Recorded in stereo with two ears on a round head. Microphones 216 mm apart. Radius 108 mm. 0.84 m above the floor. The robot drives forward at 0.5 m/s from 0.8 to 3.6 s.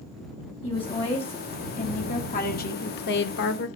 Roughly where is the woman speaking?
Left.